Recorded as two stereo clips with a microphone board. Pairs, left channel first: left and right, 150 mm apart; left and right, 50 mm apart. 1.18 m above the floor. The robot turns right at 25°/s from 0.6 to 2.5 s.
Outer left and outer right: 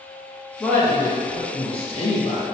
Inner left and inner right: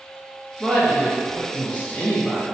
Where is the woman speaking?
10° left, 0.7 m; by 2.5 s 60° left, 0.7 m.